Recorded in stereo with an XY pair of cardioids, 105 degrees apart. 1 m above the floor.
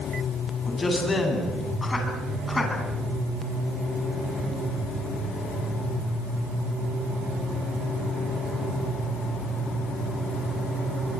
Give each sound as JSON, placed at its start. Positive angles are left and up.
{"t": 0.7, "sound": "a man speaking", "azimuth_deg": 25, "distance_m": 9.5}